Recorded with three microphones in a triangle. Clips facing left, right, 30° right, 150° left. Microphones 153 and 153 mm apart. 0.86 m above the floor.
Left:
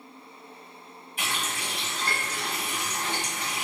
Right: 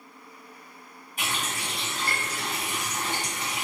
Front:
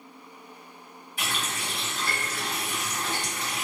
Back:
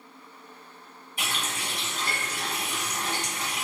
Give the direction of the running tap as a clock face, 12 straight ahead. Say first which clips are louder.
Right 1 dB, front 1 dB; 5 o'clock.